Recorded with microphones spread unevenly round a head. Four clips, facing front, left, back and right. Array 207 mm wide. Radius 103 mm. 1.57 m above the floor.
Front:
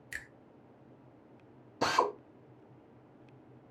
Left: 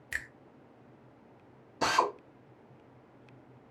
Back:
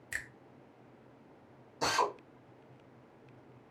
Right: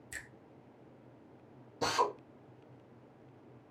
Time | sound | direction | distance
0.1 | a finger snap | 120° left | 0.7 m
1.8 | a drill | 55° left | 0.6 m